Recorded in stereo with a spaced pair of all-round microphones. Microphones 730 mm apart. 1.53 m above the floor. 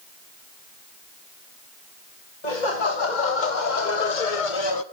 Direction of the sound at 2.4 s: 70° left (ahead or behind).